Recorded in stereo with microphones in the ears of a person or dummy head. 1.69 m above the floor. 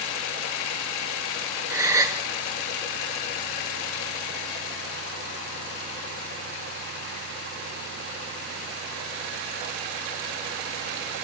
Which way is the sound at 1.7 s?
10° right (ahead or behind).